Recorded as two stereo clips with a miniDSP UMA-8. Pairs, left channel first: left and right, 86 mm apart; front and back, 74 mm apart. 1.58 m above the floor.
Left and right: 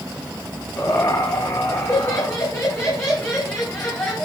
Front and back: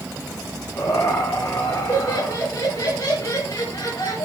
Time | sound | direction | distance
0.8 | laughter | 50° left | 4 m